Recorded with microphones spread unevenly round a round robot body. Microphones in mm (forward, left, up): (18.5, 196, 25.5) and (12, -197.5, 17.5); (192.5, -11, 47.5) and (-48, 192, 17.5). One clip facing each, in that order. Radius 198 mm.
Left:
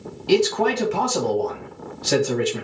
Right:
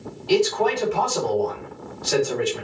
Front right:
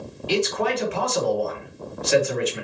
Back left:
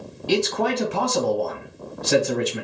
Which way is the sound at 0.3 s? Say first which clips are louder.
Left 1 dB, back left 1 dB; 105° left.